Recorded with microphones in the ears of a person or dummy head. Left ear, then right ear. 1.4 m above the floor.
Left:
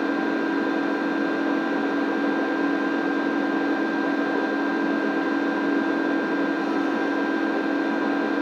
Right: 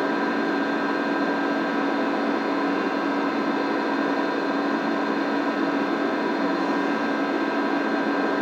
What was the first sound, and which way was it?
An engine running, 65° right (ahead or behind).